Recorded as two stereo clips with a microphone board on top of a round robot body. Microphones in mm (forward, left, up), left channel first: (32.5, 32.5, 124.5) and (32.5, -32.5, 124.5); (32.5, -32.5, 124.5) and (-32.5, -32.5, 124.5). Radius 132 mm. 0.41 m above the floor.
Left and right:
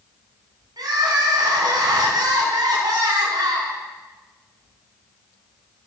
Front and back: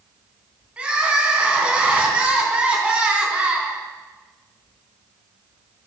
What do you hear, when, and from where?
0.8 s crying: 105° right, 4 m